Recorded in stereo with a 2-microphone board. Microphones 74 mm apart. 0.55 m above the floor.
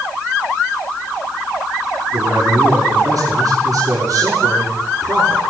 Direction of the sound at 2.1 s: 60° right (ahead or behind).